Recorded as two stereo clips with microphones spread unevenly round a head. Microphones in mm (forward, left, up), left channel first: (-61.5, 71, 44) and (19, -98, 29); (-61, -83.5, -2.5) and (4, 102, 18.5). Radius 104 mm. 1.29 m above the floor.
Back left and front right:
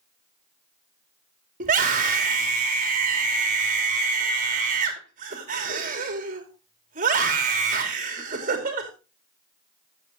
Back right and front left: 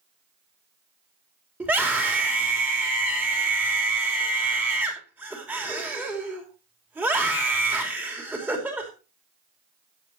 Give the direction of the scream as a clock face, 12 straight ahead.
12 o'clock.